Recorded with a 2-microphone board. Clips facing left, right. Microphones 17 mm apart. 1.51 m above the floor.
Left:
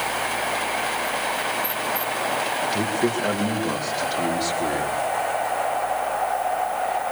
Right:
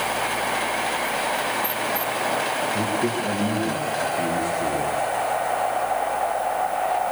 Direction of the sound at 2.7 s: 85° left.